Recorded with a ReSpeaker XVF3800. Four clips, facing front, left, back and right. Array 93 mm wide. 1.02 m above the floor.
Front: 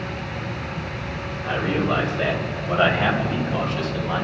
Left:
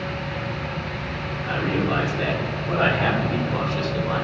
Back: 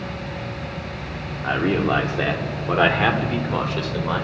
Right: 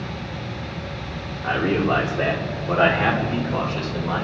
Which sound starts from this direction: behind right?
A man speaking, at 1.4 s.